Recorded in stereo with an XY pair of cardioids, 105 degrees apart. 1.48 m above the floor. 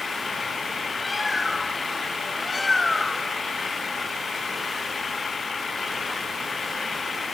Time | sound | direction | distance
0.0 | an engine running | 25° left | ?
1.0 | a bird | 15° left | ?